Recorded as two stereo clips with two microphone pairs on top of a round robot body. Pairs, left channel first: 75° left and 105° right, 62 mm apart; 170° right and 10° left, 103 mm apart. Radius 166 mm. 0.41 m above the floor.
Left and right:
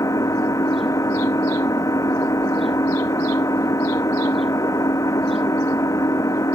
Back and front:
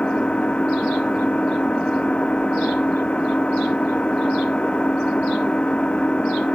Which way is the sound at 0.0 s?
110° left.